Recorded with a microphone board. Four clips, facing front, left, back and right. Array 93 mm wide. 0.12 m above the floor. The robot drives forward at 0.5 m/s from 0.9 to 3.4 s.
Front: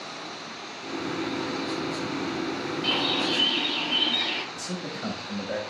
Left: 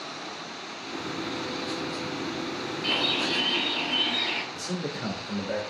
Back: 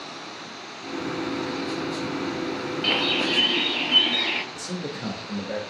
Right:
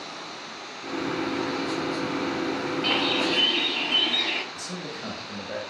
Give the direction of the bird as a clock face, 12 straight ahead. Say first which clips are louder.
Right 3 dB, back 2 dB; 5 o'clock.